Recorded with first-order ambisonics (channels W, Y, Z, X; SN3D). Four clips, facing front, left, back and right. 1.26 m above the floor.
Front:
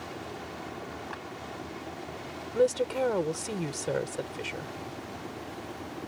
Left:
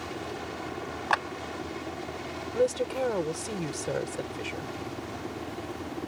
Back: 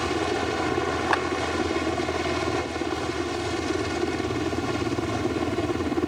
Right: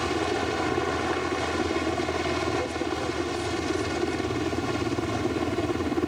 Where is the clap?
145° left.